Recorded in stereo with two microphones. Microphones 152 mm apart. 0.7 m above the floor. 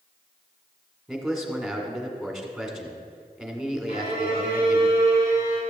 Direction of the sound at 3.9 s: 80° left.